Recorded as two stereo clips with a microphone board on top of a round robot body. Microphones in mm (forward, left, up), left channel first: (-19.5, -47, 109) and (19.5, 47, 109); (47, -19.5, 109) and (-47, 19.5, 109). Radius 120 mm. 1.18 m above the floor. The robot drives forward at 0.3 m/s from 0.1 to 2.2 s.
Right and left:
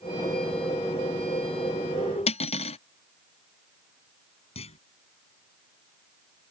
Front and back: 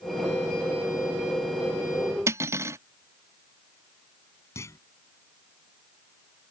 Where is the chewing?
I don't hear chewing.